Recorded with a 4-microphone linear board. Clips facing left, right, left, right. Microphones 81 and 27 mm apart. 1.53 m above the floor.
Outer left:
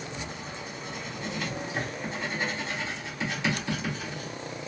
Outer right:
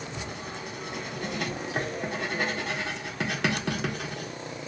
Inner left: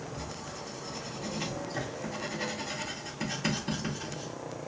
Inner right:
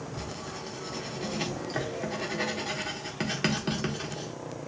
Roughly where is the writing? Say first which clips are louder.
Outer right 1 dB, inner right 2 dB; right.